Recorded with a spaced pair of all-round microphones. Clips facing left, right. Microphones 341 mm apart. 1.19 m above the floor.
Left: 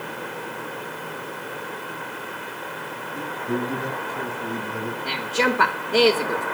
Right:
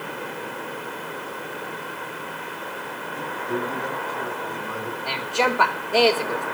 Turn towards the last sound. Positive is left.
turn(degrees=25)  # may be behind; listen again after turning